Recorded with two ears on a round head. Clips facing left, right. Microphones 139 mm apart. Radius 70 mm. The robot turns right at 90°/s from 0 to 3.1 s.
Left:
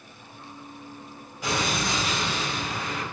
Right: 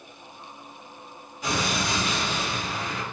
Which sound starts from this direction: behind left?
An explosion, at 1.4 s.